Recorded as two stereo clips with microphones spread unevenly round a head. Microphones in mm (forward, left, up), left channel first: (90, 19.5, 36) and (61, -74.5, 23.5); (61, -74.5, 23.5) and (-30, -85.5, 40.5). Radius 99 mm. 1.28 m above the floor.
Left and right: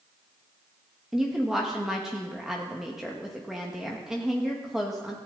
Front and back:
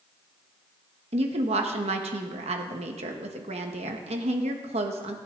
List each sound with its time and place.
1.1 s a woman speaking: 165° left, 1.6 m